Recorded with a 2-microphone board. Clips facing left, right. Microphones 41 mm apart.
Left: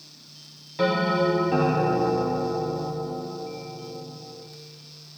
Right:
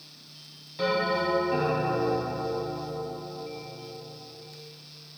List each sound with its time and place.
0.8 s a bell: 25° left (ahead or behind), 3.5 m